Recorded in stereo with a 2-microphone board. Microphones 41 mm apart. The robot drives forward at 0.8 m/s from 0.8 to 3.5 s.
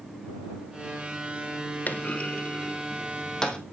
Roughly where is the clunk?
Left.